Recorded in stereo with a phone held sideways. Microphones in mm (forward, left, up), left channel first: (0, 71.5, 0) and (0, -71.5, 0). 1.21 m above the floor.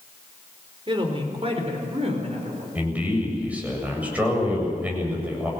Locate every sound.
0.9 s a woman speaking: 40° right (ahead or behind), 3.5 m; by 2.6 s 55° right (ahead or behind), 4 m
2.8 s a man speaking: 10° right (ahead or behind), 7.5 m